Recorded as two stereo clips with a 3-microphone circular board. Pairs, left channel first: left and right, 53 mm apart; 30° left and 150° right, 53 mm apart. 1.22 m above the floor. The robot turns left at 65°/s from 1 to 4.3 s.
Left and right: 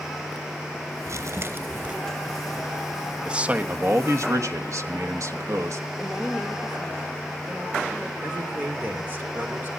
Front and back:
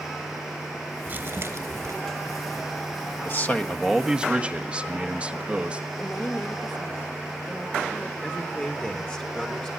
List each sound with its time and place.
1.1 s crumpling: 105° right, 3 m; by 1.9 s 160° right, 3 m
3.2 s a man speaking: 15° right, 1.3 m; by 5.8 s 85° right, 1.3 m
6.0 s a woman speaking: 25° right, 2 m
8.2 s a man speaking: 40° right, 3 m